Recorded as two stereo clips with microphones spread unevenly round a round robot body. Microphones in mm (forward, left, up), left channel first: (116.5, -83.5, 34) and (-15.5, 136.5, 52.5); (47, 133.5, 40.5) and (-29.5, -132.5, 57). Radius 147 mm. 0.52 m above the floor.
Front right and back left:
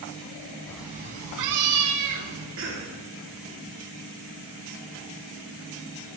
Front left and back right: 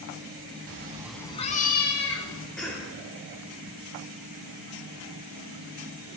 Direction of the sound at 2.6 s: 160° left.